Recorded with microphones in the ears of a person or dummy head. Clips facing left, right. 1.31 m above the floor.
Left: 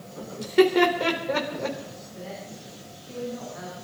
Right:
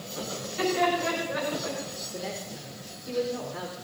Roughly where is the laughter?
Left.